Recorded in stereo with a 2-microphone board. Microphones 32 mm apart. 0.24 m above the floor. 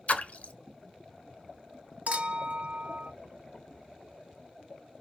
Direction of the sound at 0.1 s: 50° left (ahead or behind).